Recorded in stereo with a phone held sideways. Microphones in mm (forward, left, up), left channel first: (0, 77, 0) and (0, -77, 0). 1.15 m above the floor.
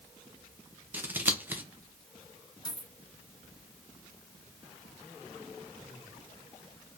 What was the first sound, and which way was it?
Scissors, 15° right (ahead or behind).